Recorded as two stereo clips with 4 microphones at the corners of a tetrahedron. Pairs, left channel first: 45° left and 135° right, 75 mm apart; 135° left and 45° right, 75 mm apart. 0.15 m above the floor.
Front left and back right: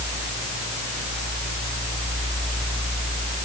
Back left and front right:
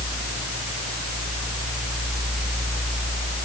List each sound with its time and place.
Only background noise.